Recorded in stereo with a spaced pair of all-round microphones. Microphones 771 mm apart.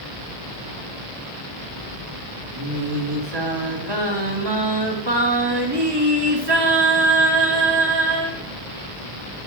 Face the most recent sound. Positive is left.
turn(degrees=-30)  # may be behind; listen again after turning